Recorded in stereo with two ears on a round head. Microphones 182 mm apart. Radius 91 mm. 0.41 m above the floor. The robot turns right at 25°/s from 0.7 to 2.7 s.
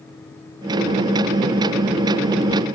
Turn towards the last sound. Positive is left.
No sound to turn to.